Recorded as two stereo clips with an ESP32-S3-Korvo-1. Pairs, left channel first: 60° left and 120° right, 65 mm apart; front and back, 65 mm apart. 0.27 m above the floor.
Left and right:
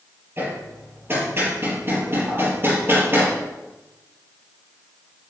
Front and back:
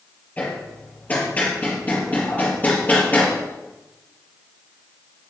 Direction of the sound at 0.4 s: 65° right.